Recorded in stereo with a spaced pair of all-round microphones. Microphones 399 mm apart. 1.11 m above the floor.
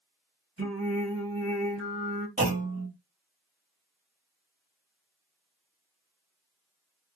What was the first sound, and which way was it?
Singing, 35° right (ahead or behind).